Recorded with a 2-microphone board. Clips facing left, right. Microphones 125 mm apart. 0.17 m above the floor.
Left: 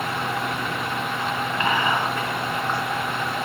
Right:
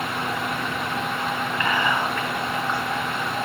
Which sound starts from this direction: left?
Whispering, at 1.6 s.